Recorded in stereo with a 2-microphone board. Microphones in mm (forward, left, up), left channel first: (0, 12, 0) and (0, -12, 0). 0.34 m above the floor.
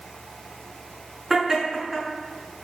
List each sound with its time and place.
1.3 s laughter: 15° right (ahead or behind), 5 m